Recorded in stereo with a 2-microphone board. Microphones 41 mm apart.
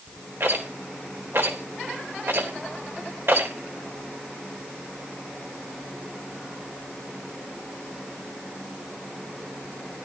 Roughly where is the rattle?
Right.